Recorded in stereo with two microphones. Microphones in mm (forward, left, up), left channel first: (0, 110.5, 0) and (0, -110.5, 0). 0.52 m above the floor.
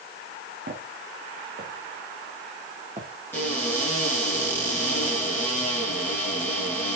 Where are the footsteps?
55° right (ahead or behind), 3 m; by 3.1 s 30° right (ahead or behind), 3 m.